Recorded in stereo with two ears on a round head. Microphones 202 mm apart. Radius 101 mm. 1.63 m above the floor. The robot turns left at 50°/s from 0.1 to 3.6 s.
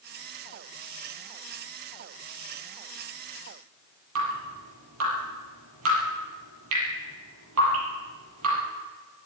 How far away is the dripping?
About 7 m.